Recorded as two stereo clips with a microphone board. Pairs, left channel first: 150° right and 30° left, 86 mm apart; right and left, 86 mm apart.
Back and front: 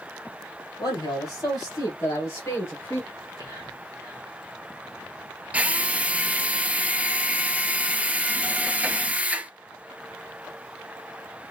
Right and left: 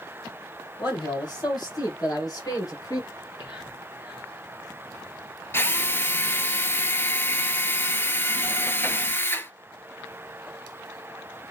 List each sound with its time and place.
0.8 s a man speaking: 115° right, 2.5 m; by 3.0 s 100° right, 1.8 m
3.1 s whispering: 105° right, 2.5 m
5.5 s a drill: 35° right, 0.7 m